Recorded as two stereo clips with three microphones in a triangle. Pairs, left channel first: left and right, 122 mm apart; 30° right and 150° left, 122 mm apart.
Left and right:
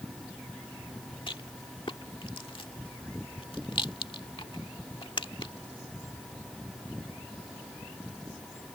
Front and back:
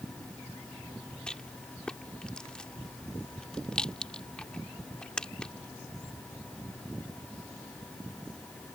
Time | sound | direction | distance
1.3 | a rattle | 50° left | ?